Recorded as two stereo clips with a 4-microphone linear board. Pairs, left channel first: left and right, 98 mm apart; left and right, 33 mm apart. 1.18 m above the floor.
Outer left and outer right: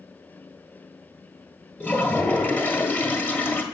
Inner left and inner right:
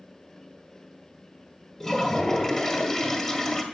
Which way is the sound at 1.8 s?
15° left (ahead or behind).